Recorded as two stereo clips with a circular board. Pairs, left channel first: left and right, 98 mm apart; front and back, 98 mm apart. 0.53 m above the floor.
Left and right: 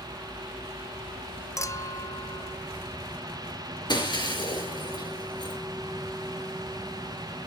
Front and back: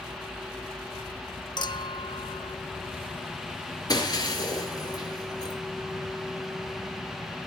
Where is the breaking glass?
50° left, 5 m.